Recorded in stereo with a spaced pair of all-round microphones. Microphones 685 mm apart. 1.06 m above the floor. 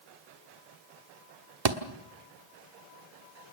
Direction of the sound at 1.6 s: 60° right (ahead or behind).